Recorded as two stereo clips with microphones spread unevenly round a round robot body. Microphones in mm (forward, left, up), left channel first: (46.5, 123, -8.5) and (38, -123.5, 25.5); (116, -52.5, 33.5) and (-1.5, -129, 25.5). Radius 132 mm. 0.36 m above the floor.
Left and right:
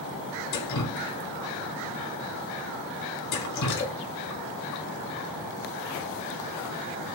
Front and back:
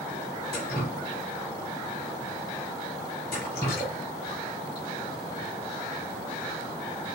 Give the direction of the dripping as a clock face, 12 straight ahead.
9 o'clock.